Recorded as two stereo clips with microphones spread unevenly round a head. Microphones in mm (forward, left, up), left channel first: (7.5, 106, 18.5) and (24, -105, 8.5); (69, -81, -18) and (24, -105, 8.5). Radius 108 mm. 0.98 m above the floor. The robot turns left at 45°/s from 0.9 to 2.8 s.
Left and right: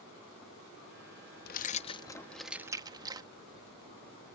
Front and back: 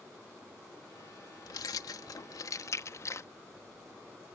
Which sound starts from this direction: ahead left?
Keys jangling, at 1.4 s.